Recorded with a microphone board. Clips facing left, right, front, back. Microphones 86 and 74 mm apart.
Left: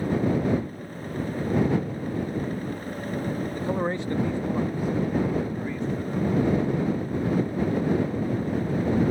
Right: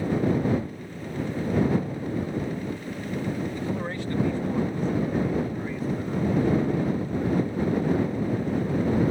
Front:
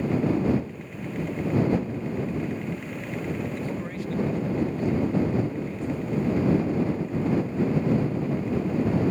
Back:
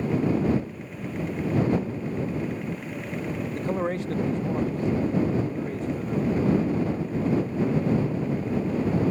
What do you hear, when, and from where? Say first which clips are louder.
3.5 s a man speaking: left 3 dB, back 4 dB; 140° left; by 6.5 s 170° right